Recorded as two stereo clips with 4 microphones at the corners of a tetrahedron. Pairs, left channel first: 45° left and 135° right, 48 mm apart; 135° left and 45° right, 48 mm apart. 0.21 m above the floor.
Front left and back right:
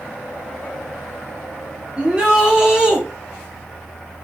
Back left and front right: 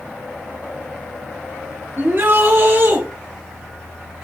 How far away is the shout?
About 3.5 m.